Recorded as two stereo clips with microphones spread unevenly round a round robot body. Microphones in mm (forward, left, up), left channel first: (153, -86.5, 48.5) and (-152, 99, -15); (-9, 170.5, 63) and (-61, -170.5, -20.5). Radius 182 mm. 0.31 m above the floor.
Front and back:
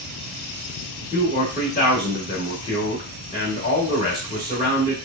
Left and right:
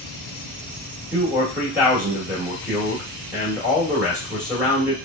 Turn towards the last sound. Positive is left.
turn(degrees=-115)